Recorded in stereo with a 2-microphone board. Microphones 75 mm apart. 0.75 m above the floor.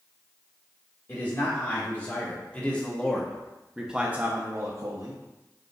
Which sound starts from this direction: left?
A man speaking, at 1.1 s.